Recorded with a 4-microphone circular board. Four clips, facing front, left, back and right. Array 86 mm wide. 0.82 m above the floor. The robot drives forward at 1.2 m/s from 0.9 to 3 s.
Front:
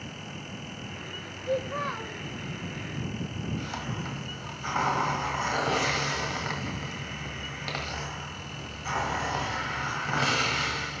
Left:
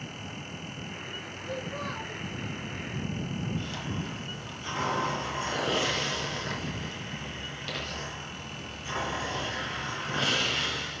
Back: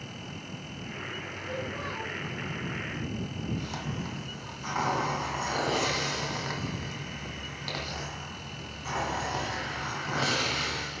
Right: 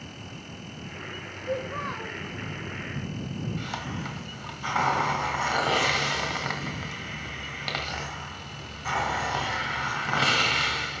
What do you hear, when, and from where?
1.5 s a child speaking: 30° right, 2 m; by 2.2 s 45° right, 1.5 m
3.6 s a hiss: 85° right, 1.7 m